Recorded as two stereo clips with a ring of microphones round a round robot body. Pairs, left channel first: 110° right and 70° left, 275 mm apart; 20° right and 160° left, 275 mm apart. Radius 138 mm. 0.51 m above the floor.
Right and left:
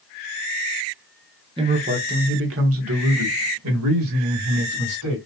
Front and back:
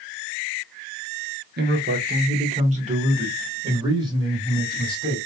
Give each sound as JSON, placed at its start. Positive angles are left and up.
{"t": 1.6, "sound": "a man speaking", "azimuth_deg": 130, "distance_m": 1.0}